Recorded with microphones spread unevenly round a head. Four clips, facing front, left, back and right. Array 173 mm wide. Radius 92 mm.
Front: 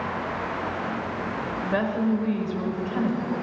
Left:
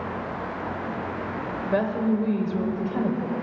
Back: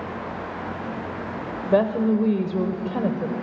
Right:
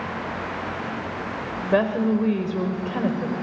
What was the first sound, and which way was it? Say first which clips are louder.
A woman speaking: right 3 dB, back 6 dB; 160° right.